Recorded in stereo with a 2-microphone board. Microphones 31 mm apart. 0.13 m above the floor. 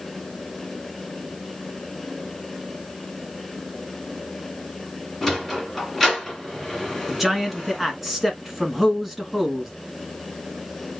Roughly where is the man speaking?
Centre.